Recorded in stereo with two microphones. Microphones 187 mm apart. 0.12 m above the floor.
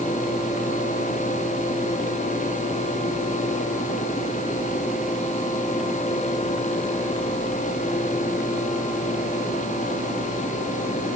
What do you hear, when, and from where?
Only background noise.